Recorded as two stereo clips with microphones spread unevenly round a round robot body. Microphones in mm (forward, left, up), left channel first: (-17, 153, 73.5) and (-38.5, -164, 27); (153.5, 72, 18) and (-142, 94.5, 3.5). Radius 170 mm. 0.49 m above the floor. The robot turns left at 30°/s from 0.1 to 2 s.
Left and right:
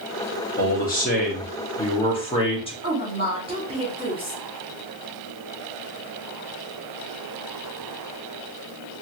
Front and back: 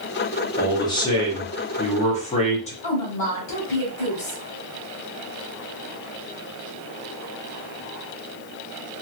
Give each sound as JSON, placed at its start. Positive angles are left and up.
{"t": 0.6, "sound": "a man speaking", "azimuth_deg": 65, "distance_m": 1.2}
{"t": 2.8, "sound": "a woman speaking", "azimuth_deg": -25, "distance_m": 1.5}